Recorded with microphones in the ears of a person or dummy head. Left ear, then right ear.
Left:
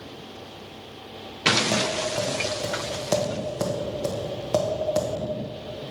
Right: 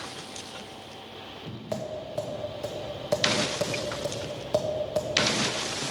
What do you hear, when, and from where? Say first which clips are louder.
1.7 s tapping: left 8 dB; 5° left (ahead or behind), 1.2 m